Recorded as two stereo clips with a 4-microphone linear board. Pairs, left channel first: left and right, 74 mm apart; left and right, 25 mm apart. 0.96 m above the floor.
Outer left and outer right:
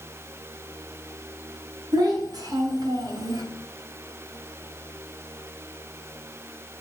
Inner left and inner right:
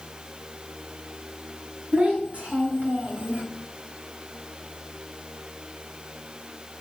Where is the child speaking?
70° right (ahead or behind), 4 m; by 3.4 s 75° right (ahead or behind), 2.5 m.